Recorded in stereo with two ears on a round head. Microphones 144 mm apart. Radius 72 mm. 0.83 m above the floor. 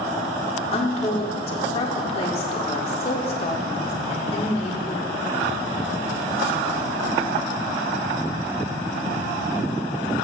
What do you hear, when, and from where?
0.7 s a woman speaking: 35° left (ahead or behind), 1.8 m